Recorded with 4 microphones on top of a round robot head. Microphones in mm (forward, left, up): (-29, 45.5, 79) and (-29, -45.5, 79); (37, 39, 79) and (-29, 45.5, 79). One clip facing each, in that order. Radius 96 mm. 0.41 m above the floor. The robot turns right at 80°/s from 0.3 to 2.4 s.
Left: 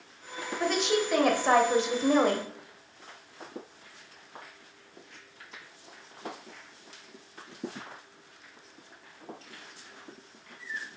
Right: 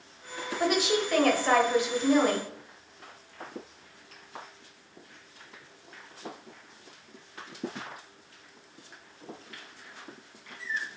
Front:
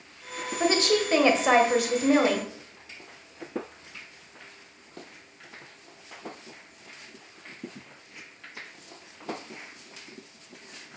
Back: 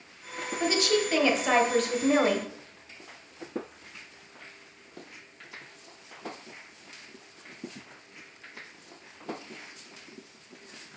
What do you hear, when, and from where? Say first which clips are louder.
0.6 s a woman speaking: right 1 dB, front 2 dB; 30° right, 1.0 m; by 2.5 s 115° left, 1.0 m